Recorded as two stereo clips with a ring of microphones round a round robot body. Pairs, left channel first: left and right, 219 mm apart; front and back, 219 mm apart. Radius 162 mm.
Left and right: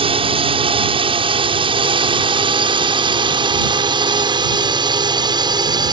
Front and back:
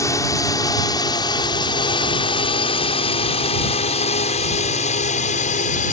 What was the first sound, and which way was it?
A drone, 60° right.